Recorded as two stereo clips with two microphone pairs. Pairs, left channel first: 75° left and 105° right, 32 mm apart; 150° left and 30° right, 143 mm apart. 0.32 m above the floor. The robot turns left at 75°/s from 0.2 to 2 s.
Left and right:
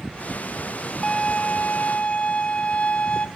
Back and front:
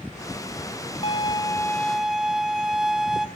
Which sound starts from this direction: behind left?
A violin, at 1.0 s.